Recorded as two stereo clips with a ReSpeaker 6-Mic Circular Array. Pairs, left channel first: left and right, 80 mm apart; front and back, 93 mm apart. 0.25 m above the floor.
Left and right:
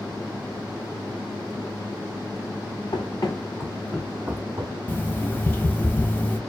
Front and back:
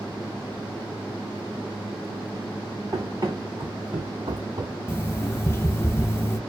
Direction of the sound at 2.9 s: 125° left.